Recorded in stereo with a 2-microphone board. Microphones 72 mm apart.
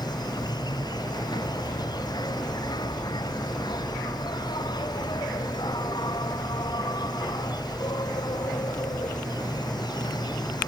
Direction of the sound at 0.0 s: 70° left (ahead or behind).